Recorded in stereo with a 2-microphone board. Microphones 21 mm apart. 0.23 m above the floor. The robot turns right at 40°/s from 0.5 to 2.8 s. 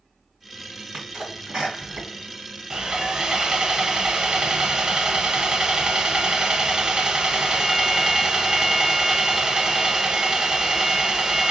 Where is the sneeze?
40° right (ahead or behind), 2 m; by 3.2 s 35° right (ahead or behind), 2 m.